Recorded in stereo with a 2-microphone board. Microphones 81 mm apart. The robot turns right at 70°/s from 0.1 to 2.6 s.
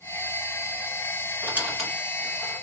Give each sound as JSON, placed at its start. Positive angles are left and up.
{"t": 1.4, "sound": "a squeak", "side_deg": -30, "distance_m": 1.9}